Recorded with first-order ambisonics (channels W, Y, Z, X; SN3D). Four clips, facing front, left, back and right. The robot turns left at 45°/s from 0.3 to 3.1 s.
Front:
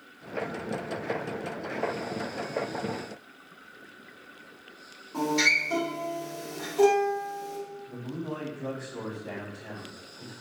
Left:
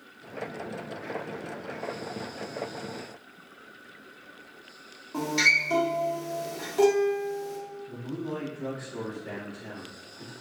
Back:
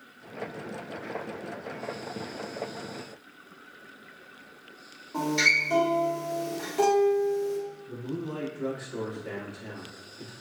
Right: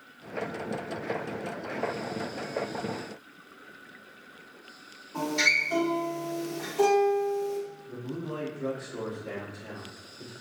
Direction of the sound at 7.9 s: 170° left.